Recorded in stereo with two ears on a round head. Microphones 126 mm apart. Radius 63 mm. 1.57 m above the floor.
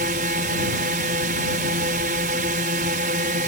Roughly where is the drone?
Right.